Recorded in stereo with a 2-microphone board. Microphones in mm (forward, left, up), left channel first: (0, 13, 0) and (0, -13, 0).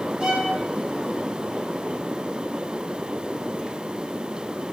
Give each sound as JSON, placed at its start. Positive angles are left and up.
{"t": 0.2, "sound": "a violin", "side_deg": -35, "distance_m": 1.5}